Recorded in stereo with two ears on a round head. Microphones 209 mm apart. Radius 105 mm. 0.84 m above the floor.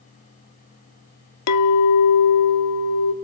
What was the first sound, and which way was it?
A clink, 80° left.